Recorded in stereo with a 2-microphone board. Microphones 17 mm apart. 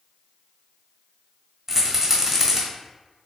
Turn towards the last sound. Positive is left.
turn(degrees=-15)  # may be behind; listen again after turning